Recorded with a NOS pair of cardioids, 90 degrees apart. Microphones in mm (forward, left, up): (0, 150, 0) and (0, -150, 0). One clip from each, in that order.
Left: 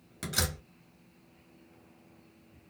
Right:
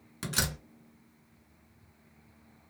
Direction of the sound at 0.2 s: 10° right.